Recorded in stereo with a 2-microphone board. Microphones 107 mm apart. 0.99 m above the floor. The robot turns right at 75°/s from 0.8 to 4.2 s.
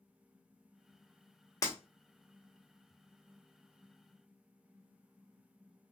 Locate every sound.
1.6 s breaking glass: 30° left (ahead or behind), 1.0 m; by 1.8 s 20° left (ahead or behind), 1.0 m